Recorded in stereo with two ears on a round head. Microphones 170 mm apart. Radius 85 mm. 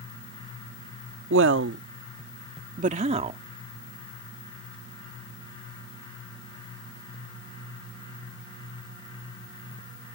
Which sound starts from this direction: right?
A woman speaking, at 1.3 s.